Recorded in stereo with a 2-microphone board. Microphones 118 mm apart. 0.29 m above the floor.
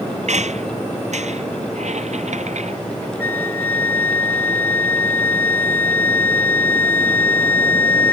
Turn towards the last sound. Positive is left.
turn(degrees=15)  # may be behind; listen again after turning